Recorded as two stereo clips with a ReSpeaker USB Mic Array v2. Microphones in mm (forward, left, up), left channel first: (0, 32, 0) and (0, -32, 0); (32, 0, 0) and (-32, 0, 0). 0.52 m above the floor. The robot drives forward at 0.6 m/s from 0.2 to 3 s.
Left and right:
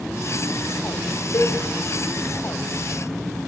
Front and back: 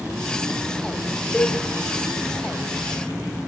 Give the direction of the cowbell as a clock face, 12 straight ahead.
9 o'clock.